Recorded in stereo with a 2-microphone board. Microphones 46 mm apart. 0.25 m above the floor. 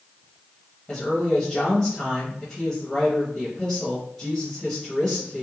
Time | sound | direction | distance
0.9 | a woman speaking | 15° left (ahead or behind) | 1.2 m